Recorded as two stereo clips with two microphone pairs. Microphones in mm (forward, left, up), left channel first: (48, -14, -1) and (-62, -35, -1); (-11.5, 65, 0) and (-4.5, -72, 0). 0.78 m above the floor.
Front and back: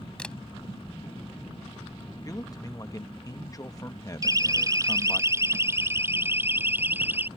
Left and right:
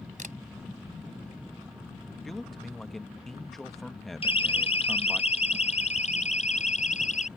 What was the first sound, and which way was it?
A camera shutter, 70° right.